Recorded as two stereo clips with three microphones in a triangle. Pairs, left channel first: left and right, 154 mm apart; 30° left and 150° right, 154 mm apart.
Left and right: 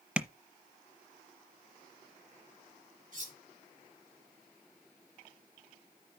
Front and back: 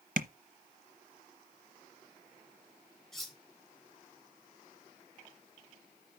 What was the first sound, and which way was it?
Tapping, 175° right.